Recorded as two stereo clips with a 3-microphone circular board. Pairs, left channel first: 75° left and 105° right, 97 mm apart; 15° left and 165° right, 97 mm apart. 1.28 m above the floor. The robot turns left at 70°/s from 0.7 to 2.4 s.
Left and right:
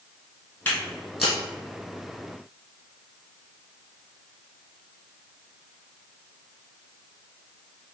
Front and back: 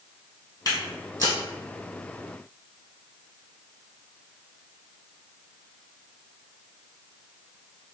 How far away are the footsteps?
About 1.5 m.